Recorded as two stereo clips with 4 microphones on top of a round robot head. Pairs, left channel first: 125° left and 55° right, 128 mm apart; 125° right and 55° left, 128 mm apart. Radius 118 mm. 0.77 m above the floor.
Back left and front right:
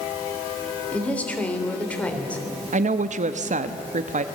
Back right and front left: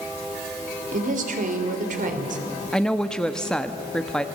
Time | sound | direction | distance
0.9 | a woman speaking | 45° left | 3.5 m
2.7 | a woman speaking | 40° right | 1.0 m